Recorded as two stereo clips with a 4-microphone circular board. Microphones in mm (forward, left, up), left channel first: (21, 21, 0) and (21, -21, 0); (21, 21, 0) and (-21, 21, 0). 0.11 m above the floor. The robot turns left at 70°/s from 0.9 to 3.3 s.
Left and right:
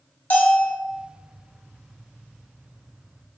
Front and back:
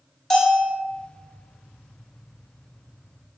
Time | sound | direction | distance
0.3 | a bell | 75° left | 0.6 m